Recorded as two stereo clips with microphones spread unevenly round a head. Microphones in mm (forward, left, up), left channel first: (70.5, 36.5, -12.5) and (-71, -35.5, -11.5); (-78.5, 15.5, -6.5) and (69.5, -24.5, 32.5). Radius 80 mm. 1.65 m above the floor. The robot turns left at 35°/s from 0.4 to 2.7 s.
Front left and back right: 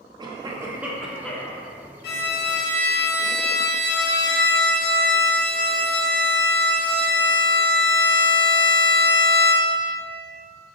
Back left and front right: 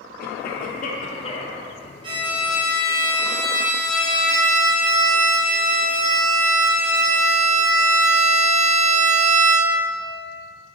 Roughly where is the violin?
Ahead left.